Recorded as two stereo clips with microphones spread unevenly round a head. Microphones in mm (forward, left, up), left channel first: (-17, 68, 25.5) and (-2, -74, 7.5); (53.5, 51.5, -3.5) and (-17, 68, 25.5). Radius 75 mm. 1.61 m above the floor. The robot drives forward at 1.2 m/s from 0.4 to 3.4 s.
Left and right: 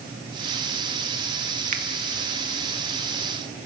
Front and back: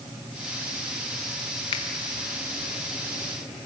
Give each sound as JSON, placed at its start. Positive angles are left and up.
{"t": 1.7, "sound": "a finger snap", "azimuth_deg": -40, "distance_m": 1.2}